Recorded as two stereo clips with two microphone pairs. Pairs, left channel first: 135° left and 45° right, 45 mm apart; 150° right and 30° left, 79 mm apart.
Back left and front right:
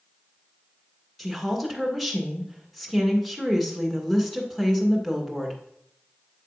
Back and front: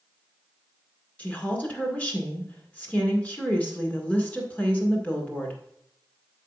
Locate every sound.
1.2 s a woman speaking: 135° right, 1.6 m